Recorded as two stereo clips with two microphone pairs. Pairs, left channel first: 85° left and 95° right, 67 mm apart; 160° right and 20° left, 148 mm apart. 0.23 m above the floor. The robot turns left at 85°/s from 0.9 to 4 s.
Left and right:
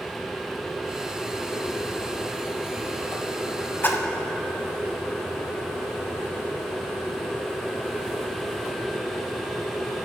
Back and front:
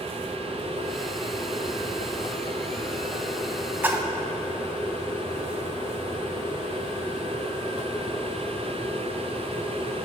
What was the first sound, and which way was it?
A splash, 90° left.